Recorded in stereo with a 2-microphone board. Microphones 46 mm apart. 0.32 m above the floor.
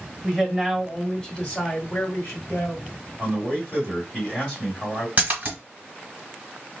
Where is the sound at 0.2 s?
5° right (ahead or behind), 1.3 m; by 2.9 s 45° left (ahead or behind), 1.4 m.